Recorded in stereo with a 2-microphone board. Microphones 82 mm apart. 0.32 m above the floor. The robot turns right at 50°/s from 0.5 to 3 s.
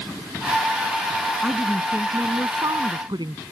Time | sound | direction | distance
1.4 | a woman speaking | straight behind | ?